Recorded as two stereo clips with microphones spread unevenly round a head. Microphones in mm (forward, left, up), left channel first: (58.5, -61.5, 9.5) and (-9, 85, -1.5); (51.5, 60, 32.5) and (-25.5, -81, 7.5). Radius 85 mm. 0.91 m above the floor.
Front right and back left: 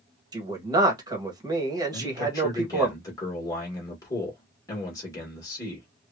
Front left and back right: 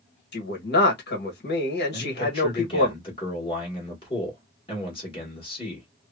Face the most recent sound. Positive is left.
turn(degrees=0)